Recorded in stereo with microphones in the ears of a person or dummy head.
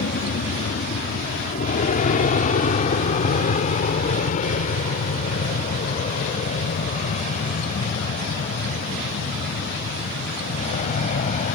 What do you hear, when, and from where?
0.0 s an aircraft: 45° left (ahead or behind); by 11.6 s 40° left (ahead or behind)